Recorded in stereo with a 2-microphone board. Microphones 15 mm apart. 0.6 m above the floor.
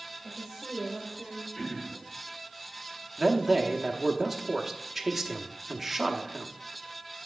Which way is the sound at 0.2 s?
15° left (ahead or behind).